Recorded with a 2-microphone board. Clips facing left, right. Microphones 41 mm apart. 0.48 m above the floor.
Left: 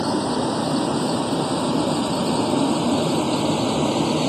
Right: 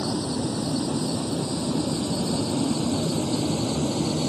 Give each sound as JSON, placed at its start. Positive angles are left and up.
{"t": 0.0, "sound": "a vehicle", "side_deg": 70}